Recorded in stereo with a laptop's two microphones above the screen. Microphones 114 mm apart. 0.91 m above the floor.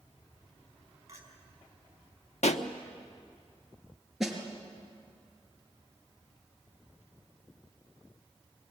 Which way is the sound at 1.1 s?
30° right (ahead or behind).